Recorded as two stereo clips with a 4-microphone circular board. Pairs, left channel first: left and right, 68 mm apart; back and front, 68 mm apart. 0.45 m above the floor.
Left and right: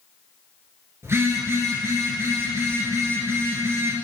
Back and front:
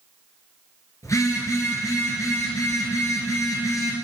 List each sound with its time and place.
1.0 s a phone buzzing: 140° right, 2.5 m